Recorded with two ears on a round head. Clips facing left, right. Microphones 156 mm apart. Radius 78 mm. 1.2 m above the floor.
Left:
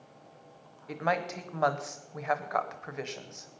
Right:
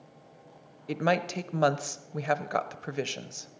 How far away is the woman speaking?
About 0.7 m.